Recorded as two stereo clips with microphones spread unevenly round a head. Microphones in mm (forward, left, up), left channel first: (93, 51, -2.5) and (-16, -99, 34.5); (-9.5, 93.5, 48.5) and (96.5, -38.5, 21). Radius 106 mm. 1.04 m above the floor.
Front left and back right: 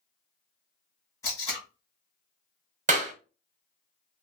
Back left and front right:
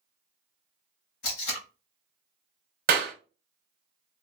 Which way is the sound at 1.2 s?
135° left.